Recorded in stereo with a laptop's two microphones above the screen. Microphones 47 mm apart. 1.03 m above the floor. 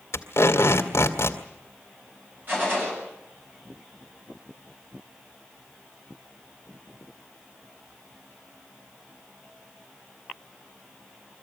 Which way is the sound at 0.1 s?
80° left.